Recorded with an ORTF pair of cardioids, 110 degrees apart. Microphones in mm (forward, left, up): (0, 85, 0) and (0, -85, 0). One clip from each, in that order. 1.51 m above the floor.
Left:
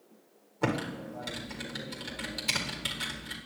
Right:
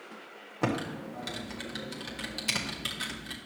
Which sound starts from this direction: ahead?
Typing on a keyboard, at 0.6 s.